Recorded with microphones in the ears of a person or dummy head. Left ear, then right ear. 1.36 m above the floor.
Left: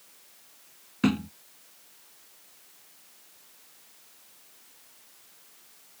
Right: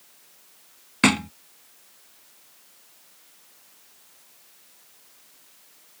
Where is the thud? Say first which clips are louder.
Right 8 dB; 35° right (ahead or behind).